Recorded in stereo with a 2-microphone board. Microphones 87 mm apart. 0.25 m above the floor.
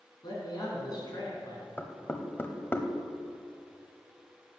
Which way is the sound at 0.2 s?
50° left (ahead or behind).